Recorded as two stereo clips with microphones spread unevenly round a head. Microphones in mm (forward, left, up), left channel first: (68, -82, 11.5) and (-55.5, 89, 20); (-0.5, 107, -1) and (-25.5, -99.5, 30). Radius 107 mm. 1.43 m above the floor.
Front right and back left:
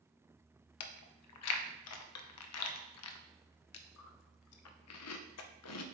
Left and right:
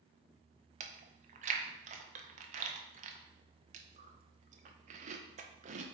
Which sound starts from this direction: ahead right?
Chewing, at 0.8 s.